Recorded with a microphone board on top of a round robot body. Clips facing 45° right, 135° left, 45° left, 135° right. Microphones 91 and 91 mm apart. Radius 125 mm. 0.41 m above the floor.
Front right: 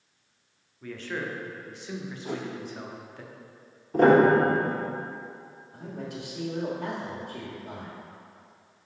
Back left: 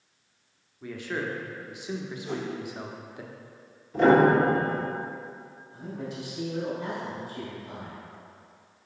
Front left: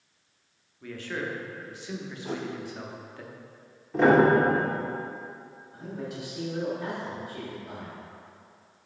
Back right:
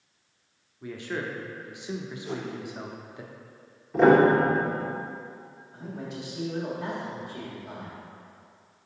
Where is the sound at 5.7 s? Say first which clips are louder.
Back left 1 dB, front left 1 dB; 50° right, 1.7 m.